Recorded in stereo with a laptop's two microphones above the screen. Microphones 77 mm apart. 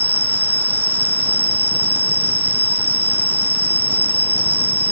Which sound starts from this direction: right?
An insect, at 0.0 s.